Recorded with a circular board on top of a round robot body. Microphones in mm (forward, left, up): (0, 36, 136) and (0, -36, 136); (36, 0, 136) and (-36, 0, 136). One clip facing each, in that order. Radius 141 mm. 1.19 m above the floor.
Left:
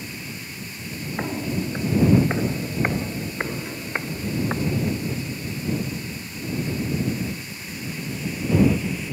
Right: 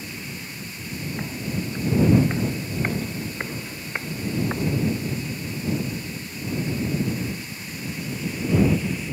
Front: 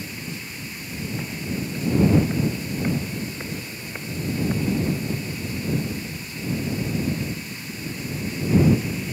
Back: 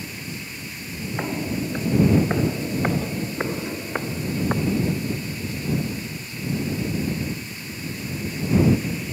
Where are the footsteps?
145° left; by 4.8 s 170° left.